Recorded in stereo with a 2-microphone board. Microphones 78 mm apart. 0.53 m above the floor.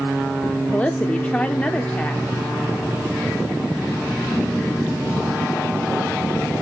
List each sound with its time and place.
0.7 s a woman speaking: 15° left (ahead or behind), 0.8 m